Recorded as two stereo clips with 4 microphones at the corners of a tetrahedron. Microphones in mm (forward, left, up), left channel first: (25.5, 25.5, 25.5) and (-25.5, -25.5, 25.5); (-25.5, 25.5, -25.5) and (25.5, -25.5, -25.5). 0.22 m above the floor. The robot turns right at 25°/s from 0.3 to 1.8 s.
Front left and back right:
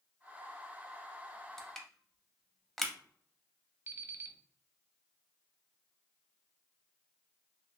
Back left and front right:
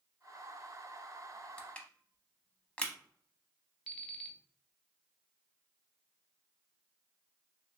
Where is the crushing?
115° left, 0.6 m; by 2.9 s 120° left, 0.6 m.